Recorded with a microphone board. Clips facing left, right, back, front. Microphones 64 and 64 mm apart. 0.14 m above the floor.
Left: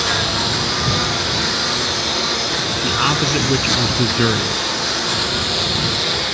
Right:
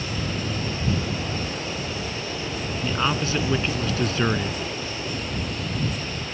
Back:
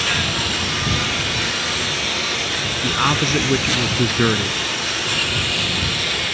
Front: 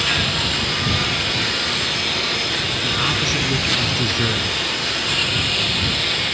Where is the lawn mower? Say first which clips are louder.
Left 9 dB, even; 90° left.